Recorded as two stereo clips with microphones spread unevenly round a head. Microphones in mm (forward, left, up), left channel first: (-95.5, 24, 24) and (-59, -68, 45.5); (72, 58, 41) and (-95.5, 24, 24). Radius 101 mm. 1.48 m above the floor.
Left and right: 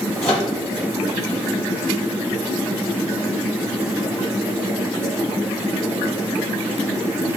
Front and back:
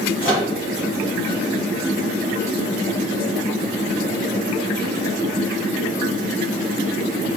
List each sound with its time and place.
0.2 s a microwave: 45° left, 1.9 m